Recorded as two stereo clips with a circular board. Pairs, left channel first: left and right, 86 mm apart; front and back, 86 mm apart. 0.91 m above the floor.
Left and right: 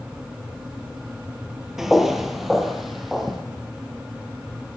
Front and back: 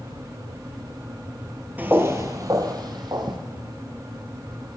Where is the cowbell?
I don't hear a cowbell.